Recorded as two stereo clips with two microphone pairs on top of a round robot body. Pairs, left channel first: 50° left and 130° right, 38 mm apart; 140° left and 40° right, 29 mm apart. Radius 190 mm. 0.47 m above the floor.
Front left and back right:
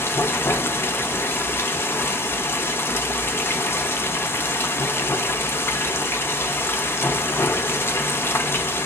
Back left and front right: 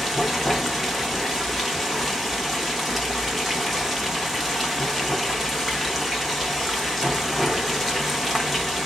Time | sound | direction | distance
0.0 | running water | 50° left | 0.8 m